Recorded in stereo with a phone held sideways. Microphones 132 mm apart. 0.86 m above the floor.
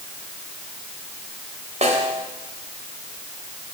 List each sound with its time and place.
1.8 s a snare drum: 60° right (ahead or behind), 3 m